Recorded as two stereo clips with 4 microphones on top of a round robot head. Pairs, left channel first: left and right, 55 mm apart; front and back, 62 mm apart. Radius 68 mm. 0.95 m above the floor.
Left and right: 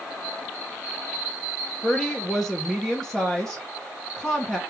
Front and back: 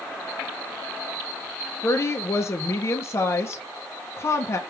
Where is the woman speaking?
10° left, 0.6 m.